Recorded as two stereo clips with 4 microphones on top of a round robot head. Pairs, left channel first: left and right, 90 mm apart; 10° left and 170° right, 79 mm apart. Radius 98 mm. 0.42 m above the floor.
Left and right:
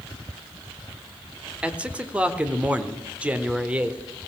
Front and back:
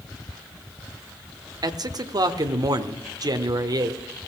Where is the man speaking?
165° right, 1.4 m.